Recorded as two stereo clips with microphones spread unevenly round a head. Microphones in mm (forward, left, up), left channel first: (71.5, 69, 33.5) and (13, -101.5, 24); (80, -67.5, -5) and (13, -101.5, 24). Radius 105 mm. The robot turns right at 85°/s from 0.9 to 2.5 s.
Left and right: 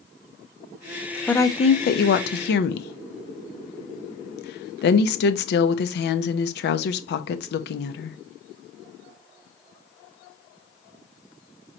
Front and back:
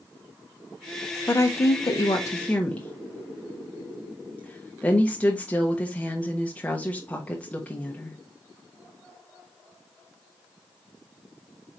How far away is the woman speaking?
About 0.6 m.